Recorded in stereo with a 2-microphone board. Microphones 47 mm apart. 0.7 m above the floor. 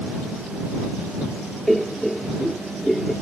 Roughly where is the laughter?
Centre.